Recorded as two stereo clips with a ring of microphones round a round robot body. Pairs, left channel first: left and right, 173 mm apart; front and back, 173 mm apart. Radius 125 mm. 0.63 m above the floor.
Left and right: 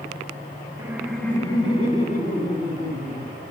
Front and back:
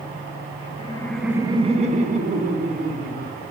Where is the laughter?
25° right, 0.6 m; by 3.4 s 145° left, 1.8 m.